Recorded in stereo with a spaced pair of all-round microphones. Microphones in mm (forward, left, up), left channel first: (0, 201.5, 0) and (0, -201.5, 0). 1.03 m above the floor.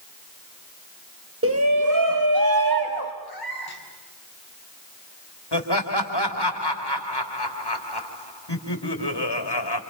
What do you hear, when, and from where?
1.4 s a shout: 30° right (ahead or behind), 1.0 m; by 3.1 s 65° right (ahead or behind), 2.5 m
3.2 s a cat meowing: 65° left (ahead or behind), 3 m
5.5 s laughter: 75° left (ahead or behind), 3 m